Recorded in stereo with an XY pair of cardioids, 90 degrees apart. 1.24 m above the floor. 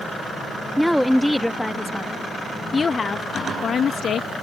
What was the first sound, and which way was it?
A woman speaking, straight ahead.